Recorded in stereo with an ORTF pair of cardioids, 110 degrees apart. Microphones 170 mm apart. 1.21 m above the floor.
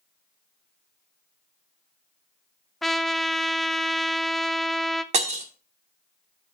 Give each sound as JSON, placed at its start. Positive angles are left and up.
{"t": 2.8, "sound": "a trumpet", "azimuth_deg": 0, "distance_m": 0.6}
{"t": 5.1, "sound": "breaking glass", "azimuth_deg": -40, "distance_m": 1.9}